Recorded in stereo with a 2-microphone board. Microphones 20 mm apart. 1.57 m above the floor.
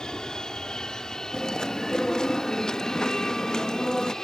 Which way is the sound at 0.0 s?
40° left (ahead or behind).